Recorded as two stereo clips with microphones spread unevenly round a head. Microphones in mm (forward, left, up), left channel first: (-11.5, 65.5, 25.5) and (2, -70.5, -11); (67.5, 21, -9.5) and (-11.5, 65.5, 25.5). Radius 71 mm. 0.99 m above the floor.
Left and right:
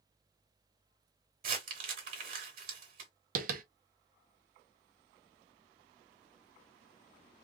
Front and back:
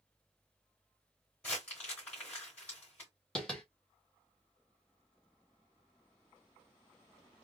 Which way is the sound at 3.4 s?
115° right.